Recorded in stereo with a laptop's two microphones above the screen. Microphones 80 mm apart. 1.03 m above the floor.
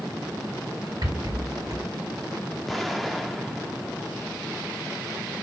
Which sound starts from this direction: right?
A rattle, at 1.0 s.